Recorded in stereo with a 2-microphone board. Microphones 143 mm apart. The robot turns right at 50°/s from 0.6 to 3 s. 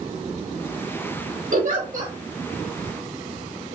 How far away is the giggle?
About 4.5 m.